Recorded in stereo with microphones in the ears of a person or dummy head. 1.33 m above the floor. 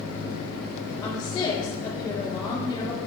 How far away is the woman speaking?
About 3.5 m.